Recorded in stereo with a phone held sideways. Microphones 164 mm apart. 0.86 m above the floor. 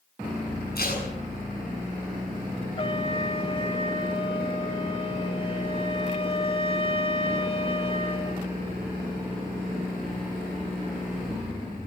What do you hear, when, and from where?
0.8 s tape being pulled: 85° left, 8 m
2.8 s a trumpet: 35° left (ahead or behind), 1.6 m